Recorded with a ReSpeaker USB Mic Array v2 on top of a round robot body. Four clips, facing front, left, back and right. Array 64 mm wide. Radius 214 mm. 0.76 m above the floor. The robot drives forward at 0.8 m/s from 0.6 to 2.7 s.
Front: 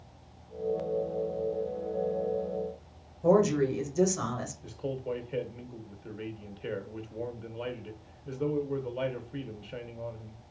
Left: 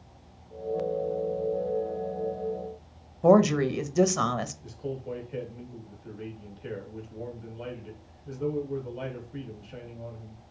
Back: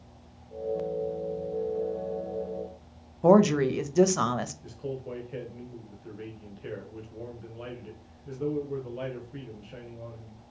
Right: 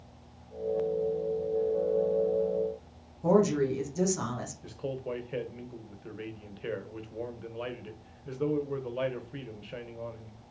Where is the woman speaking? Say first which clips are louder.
Left 4 dB, back 4 dB; 145° left, 0.8 m.